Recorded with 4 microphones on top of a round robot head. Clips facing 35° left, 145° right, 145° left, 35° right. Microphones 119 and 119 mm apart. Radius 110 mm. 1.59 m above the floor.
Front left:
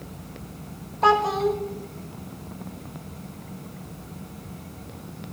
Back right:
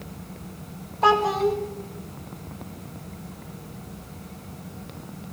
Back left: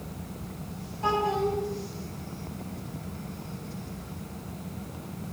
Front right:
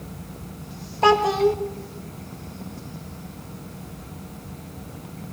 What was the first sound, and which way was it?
A child speaking, 55° right.